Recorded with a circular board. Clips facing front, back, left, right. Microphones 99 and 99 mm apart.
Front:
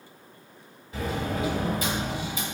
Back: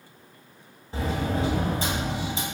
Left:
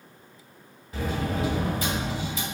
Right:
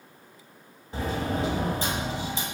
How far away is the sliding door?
About 2 m.